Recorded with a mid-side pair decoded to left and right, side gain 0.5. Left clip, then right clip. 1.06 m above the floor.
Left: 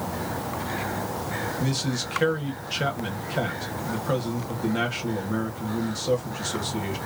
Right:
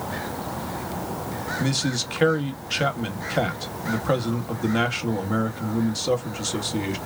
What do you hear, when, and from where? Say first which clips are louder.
1.6 s a man speaking: right 3 dB; 35° right, 1.4 m